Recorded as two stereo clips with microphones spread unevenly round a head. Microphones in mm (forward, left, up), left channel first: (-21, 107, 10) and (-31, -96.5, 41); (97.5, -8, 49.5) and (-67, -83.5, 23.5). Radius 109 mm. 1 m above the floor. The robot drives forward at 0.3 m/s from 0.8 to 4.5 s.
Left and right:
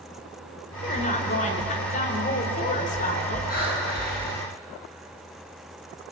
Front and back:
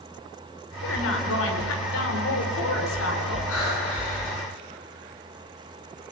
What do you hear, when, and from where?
0.8 s a woman speaking: 30° left, 4.5 m; by 3.4 s 35° left, 3.5 m
3.5 s breathing: 35° left, 9.5 m